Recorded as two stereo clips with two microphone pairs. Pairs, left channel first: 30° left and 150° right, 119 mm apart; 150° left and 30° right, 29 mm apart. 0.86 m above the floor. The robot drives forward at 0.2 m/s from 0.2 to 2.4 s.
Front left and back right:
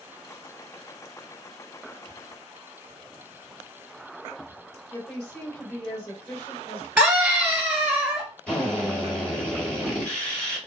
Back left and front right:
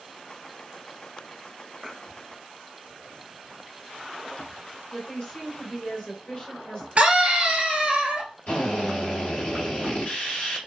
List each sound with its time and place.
4.9 s a woman speaking: 115° left, 3 m
7.0 s a scream: 75° right, 1.4 m
8.5 s a drill: 115° left, 2 m